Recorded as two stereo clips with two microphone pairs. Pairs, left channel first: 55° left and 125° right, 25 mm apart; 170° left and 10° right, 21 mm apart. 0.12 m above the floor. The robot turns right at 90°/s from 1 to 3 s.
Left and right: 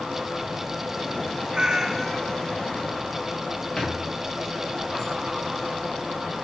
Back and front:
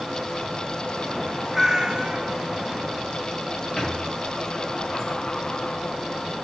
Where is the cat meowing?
80° right, 0.6 m; by 2.3 s 10° right, 0.6 m.